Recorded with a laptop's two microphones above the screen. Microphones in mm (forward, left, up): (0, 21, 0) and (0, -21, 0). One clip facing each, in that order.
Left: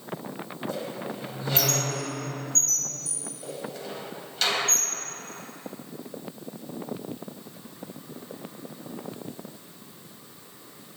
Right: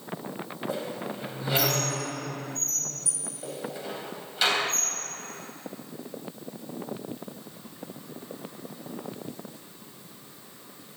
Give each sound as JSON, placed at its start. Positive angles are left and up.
{"t": 0.7, "sound": "a squeak", "side_deg": -10, "distance_m": 3.5}